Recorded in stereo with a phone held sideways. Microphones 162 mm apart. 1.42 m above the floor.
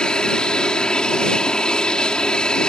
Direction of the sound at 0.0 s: 5° left (ahead or behind).